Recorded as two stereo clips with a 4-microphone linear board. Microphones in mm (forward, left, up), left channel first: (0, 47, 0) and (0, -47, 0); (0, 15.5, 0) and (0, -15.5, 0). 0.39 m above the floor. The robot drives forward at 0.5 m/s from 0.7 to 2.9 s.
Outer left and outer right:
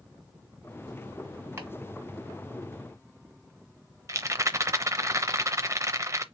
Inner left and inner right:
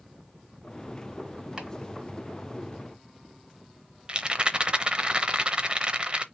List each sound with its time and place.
1.6 s chopping: 25° right (ahead or behind), 2 m
4.1 s a rattle: 35° right (ahead or behind), 0.6 m